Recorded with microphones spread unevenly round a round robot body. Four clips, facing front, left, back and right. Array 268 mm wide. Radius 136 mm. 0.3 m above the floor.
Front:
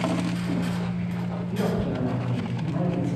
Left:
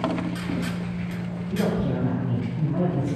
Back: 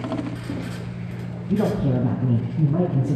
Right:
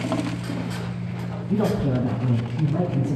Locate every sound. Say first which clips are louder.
1.5 s a man speaking: right 3 dB, back 6 dB; 145° right, 2.5 m; by 3.2 s 170° right, 3.5 m